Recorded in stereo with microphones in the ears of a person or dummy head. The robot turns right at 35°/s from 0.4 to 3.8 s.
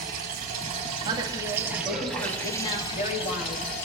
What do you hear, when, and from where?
0.0 s running water: 55° right, 5.5 m; by 3.9 s 65° left, 5.5 m
1.0 s a woman speaking: 25° right, 2 m; by 3.7 s 70° left, 2 m